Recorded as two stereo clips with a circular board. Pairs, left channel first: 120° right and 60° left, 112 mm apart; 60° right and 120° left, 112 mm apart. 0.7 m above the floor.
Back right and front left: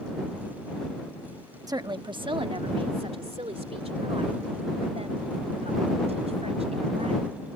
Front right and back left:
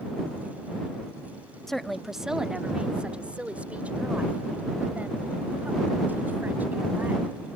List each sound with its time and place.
1.7 s a woman speaking: 25° left; by 7.5 s 45° left